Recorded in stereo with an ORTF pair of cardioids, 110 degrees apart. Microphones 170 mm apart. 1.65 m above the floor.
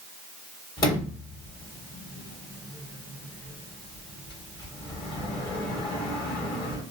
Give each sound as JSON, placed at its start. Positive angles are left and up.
{"t": 0.8, "sound": "a sliding door", "azimuth_deg": 30, "distance_m": 1.5}